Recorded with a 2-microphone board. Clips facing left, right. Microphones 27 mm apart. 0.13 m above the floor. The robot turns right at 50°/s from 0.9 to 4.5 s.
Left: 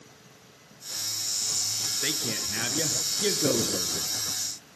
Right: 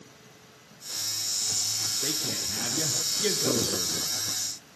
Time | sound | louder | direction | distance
2.0 | a man speaking | left 1 dB | 75° left | 1.9 m